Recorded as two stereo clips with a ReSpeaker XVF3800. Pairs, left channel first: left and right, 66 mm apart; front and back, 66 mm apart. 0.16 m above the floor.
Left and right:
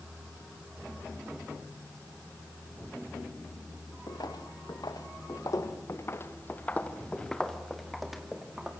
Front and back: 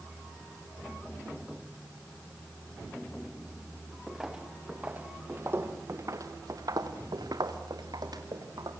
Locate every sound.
4.1 s footsteps: 95° left, 3 m; by 8.7 s 170° right, 4 m